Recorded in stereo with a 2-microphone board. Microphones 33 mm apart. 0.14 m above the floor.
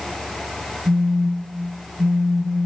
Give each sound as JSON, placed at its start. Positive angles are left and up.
{"t": 0.8, "sound": "a phone buzzing", "side_deg": -80, "distance_m": 6.5}